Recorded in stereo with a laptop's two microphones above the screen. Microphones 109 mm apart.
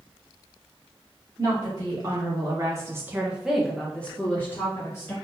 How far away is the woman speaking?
About 1.5 m.